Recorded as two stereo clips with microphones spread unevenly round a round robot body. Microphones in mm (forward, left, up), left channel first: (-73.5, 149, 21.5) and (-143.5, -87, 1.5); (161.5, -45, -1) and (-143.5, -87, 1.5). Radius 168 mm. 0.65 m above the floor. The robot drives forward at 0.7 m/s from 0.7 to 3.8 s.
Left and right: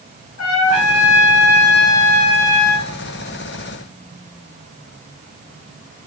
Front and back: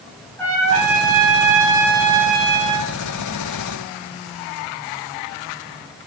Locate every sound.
0.4 s a trumpet: 95° left, 4.5 m; by 2.9 s 110° left, 5 m